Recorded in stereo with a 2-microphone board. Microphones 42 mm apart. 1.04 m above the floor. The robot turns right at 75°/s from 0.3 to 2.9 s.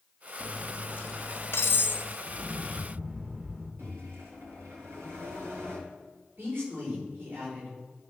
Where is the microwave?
85° right, 3 m.